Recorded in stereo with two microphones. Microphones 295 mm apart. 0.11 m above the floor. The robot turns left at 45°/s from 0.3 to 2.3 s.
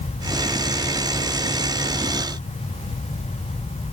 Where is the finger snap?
I don't hear a finger snap.